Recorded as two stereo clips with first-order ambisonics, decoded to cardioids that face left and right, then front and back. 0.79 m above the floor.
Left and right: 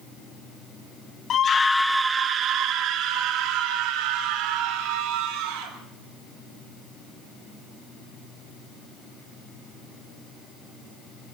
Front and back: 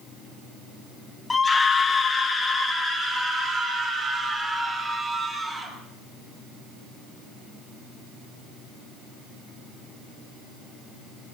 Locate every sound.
1.3 s a scream: 65° left, 1.0 m; by 5.7 s 80° right, 4 m